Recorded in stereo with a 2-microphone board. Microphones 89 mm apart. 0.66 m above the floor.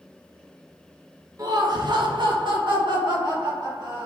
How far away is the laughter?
About 0.8 m.